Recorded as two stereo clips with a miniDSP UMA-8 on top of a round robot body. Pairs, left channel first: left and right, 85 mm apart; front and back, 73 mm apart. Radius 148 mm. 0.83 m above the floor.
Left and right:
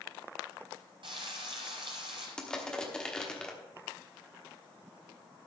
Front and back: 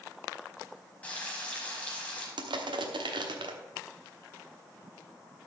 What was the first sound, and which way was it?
Frying, 65° right.